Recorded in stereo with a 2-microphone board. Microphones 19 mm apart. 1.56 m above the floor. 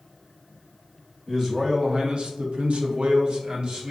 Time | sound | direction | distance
1.3 | a man speaking | 20° right (ahead or behind) | 0.8 m